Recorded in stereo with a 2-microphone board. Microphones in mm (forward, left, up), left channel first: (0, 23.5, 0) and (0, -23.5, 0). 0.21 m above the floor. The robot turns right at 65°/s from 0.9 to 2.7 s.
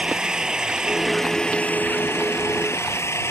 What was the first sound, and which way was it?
An engine running, 20° right.